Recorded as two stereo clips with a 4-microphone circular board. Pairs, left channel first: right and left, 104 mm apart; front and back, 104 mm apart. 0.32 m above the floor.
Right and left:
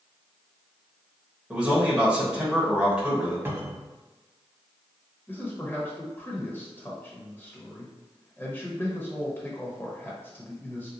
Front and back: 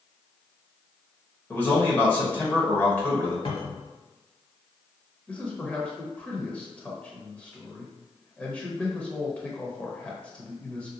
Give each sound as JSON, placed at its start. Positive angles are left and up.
{"t": 1.5, "sound": "a man speaking", "azimuth_deg": 30, "distance_m": 1.1}
{"t": 3.5, "sound": "a cupboard door", "azimuth_deg": 25, "distance_m": 0.7}
{"t": 5.3, "sound": "a man speaking", "azimuth_deg": -55, "distance_m": 0.9}